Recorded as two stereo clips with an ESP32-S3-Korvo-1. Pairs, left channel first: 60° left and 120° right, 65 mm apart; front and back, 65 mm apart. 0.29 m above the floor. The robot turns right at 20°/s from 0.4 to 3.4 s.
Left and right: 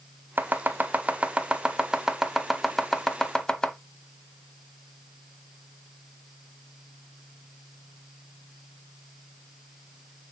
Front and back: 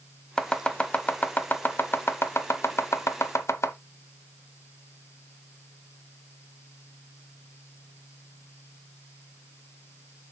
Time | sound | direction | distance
0.4 | chopping | 75° right | 0.8 m